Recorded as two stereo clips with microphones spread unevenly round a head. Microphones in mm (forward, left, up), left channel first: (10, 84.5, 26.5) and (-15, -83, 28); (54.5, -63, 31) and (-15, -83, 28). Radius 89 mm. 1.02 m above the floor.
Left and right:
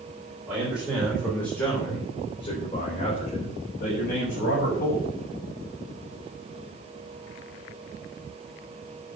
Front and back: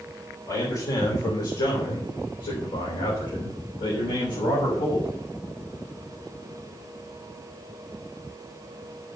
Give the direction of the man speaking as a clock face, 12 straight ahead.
1 o'clock.